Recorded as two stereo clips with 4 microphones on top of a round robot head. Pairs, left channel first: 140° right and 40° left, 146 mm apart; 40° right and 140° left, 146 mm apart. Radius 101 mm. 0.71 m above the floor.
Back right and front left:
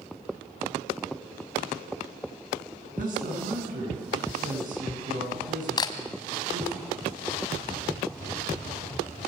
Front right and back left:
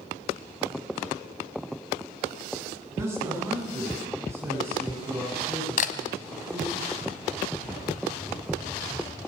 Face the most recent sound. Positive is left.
turn(degrees=-75)